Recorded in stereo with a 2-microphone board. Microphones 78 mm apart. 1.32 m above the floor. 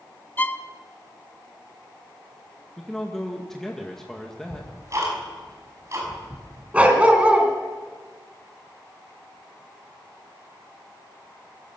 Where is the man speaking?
5° left (ahead or behind), 2 m.